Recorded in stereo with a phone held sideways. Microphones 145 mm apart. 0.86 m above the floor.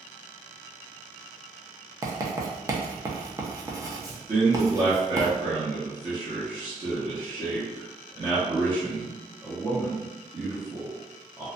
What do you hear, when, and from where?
2.0 s writing: 20° right (ahead or behind), 0.5 m
4.3 s a man speaking: 30° right (ahead or behind), 0.8 m